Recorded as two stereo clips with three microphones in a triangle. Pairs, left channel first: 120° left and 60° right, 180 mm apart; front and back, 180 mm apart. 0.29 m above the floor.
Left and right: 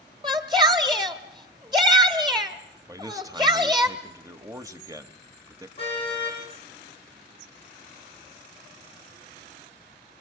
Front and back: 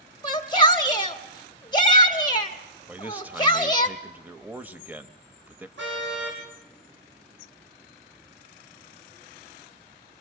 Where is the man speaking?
110° right, 0.9 m.